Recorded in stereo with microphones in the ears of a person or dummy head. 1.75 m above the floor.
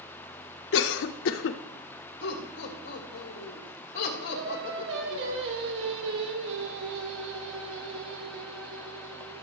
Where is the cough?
65° left (ahead or behind), 0.5 m.